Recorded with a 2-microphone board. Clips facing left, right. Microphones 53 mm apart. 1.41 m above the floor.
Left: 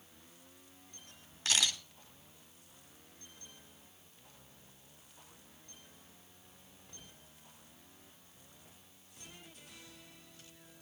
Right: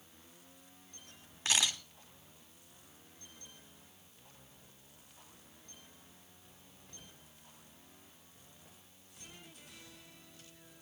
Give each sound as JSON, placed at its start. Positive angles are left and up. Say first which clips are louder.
{"t": 1.4, "sound": "a camera shutter", "louder": "even", "side_deg": -25, "distance_m": 3.0}